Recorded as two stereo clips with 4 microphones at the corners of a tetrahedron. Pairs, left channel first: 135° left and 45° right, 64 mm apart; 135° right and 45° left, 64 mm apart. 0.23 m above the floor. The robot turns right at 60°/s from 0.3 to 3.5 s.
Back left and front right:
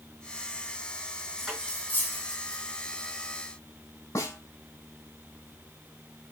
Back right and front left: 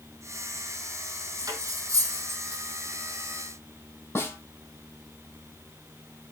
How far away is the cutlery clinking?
About 4.5 m.